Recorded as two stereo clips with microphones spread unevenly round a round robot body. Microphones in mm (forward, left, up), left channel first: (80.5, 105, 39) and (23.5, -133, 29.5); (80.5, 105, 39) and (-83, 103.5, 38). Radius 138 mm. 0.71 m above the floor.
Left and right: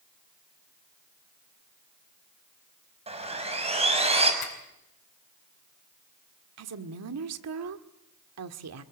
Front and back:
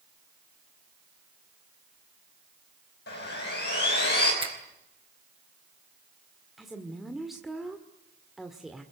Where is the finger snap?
125° left, 4 m.